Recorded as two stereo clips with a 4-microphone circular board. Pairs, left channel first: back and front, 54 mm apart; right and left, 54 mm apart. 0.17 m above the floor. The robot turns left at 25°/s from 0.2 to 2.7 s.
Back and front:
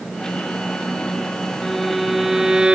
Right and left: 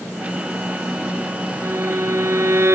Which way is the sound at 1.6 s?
95° left.